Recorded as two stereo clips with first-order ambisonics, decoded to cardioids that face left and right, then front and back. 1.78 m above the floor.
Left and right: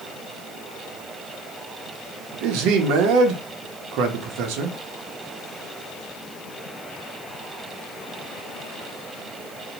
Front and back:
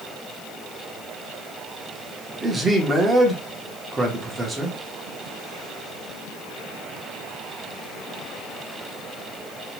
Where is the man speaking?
105° right, 0.7 m.